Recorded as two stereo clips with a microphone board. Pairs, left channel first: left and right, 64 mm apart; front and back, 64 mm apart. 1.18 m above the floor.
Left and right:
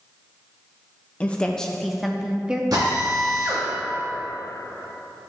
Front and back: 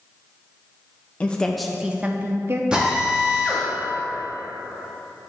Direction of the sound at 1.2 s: 45° left.